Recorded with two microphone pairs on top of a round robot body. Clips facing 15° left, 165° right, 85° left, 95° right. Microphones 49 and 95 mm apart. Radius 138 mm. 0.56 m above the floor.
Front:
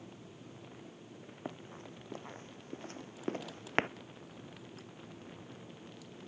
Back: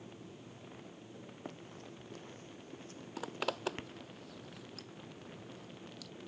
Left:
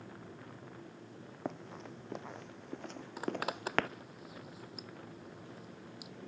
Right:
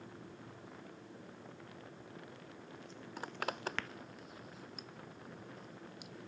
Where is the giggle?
I don't hear a giggle.